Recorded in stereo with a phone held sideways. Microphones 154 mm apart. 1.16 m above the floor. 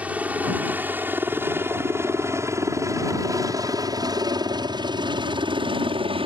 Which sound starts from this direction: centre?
A helicopter, at 0.0 s.